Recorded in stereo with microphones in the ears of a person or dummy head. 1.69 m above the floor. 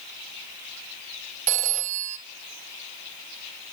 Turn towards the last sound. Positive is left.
turn(degrees=-45)  # may be behind; listen again after turning